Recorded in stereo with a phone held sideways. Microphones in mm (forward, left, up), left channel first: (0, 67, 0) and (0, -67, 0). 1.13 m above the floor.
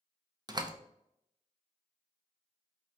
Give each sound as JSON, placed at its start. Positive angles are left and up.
{"t": 0.5, "sound": "a door slam", "side_deg": -30, "distance_m": 0.5}